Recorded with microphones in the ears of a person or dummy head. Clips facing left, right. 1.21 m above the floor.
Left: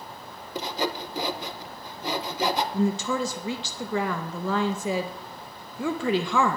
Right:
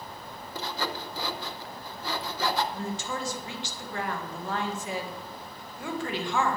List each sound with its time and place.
0.6 s sawing: 20° left (ahead or behind), 0.9 m
2.7 s a woman speaking: 70° left (ahead or behind), 1.8 m